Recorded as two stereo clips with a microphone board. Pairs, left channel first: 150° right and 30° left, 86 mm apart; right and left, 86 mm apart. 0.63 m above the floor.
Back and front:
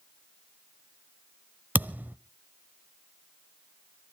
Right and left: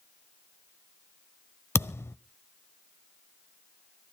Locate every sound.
1.8 s a thud: 35° right, 0.6 m